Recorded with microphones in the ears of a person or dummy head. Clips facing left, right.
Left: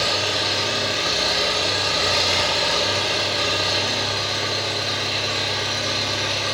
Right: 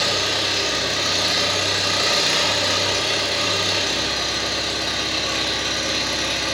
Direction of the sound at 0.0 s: 30° right (ahead or behind).